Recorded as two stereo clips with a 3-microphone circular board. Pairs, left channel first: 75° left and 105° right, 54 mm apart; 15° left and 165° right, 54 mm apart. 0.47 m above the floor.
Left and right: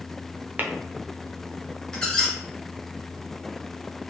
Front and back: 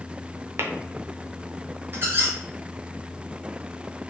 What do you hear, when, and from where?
0.6 s tapping: 155° right, 0.8 m
1.9 s a squeak: 150° left, 1.9 m